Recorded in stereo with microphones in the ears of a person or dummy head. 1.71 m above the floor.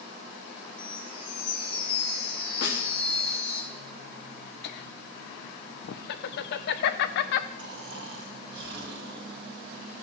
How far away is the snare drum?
About 1.7 m.